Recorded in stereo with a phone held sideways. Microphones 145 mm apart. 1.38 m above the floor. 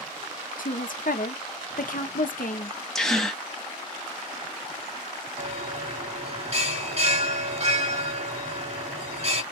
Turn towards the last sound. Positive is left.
turn(degrees=-45)  # may be behind; listen again after turning